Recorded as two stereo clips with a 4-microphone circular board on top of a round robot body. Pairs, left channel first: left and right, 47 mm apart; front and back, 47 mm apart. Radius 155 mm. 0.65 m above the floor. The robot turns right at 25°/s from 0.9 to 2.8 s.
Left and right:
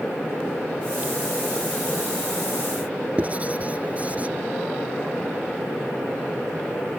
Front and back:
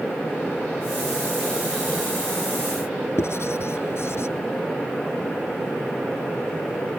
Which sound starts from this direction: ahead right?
Writing, at 3.2 s.